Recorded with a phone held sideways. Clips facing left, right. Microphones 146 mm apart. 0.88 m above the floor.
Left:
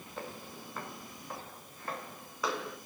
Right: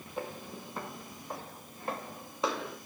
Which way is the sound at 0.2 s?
15° right (ahead or behind).